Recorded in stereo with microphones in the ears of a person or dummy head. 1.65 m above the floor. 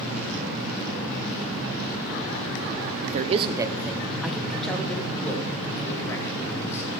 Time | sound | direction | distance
3.0 | a man speaking | 50° right (ahead or behind) | 0.6 m